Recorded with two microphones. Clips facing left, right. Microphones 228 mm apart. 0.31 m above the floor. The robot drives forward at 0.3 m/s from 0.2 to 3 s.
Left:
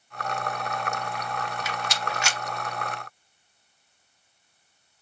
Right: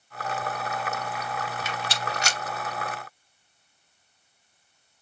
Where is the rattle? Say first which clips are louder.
Even; 30° right (ahead or behind), 0.7 m; by 2.4 s 40° right (ahead or behind), 0.5 m.